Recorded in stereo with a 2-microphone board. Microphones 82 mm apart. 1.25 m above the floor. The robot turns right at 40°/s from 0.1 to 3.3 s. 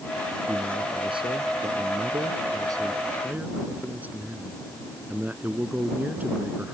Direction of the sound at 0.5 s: 130° right.